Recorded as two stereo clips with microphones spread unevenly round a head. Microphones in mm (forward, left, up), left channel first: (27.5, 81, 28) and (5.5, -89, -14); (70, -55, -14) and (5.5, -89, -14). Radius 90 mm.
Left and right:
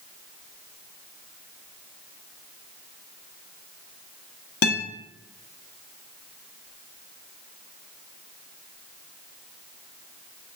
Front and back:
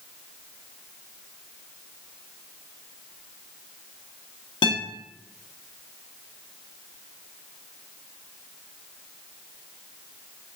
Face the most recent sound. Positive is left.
turn(degrees=50)